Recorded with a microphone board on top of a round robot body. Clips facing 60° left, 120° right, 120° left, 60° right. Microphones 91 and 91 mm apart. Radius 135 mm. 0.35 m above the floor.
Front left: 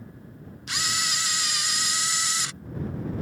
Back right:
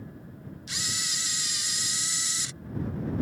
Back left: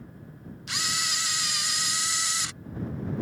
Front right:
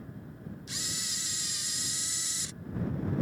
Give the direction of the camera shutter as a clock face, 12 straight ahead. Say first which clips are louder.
Front left 9 dB, back left 9 dB; 9 o'clock.